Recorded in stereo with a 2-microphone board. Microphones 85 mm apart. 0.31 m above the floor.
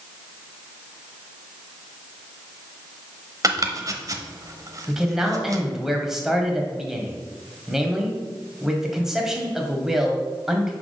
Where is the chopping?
45° right (ahead or behind), 0.8 m.